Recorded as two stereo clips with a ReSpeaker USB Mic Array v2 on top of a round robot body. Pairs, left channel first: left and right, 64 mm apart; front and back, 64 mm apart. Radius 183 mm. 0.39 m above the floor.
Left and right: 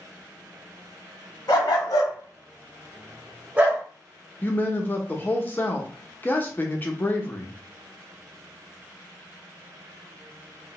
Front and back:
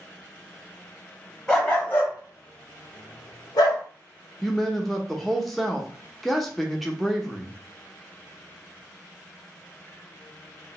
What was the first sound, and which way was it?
A dog barking, 75° left.